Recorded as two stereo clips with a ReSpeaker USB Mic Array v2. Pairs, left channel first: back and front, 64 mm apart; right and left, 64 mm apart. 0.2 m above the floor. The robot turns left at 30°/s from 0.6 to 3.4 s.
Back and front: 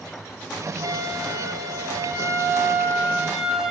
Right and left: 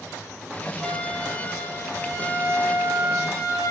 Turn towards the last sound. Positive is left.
turn(degrees=-80)